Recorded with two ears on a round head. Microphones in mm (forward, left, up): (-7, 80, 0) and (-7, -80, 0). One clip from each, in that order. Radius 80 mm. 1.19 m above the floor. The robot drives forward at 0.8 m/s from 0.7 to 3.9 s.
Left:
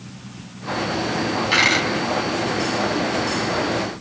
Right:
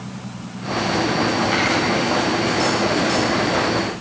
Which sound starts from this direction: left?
A dropped coin, at 1.5 s.